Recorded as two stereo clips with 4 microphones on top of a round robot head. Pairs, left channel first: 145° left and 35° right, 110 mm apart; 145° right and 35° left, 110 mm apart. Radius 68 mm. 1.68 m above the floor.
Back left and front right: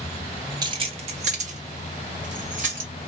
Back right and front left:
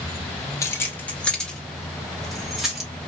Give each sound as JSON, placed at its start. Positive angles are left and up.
{"t": 0.6, "sound": "keys jangling", "azimuth_deg": -85, "distance_m": 0.7}